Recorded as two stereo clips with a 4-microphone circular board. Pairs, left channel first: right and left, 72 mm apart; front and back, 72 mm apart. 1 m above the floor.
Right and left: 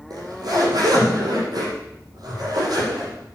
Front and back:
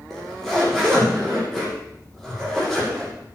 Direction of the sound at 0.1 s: 85° left.